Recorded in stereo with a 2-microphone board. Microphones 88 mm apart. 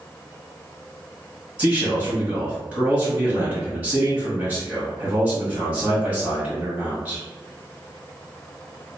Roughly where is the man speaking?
Centre.